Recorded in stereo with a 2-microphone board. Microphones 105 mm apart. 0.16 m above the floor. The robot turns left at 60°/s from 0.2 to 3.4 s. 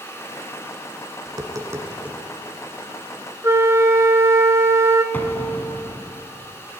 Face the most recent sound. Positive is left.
turn(degrees=20)  # may be behind; listen again after turning